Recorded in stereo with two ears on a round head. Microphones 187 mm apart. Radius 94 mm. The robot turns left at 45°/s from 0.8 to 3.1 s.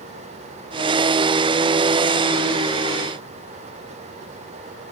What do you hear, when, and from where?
Only background noise.